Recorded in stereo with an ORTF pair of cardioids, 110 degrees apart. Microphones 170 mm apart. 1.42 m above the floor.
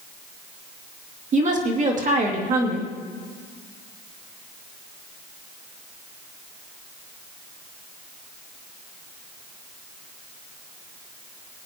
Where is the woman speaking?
50° right, 2.5 m.